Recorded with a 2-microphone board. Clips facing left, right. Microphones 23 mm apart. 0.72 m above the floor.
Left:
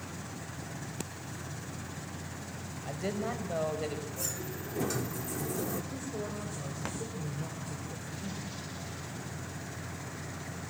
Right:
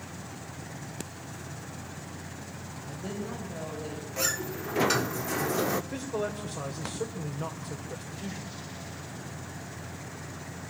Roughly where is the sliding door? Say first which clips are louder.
Right 7 dB; right.